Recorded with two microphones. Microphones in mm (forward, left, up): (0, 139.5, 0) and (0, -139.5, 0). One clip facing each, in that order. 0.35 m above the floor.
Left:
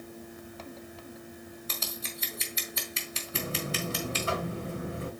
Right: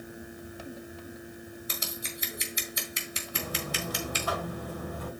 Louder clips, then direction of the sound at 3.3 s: Left 2 dB; 25° left (ahead or behind).